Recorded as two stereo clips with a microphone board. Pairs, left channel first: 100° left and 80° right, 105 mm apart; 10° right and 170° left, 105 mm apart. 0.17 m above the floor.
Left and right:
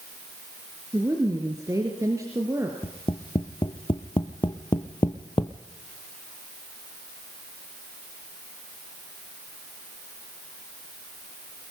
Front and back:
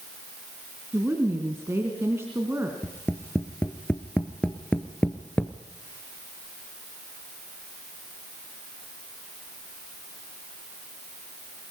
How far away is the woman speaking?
About 2.5 m.